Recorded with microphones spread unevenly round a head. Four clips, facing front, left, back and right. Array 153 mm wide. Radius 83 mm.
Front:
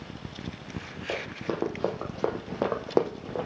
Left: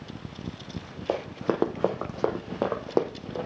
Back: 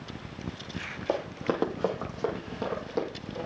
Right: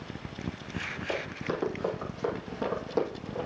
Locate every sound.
1.1 s running footsteps: 110° left, 2 m; by 3.5 s 30° left, 2.5 m